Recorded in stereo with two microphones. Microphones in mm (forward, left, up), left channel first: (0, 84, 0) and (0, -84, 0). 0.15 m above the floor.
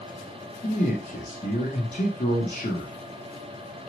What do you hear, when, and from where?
0.6 s a man speaking: 45° left (ahead or behind), 6.5 m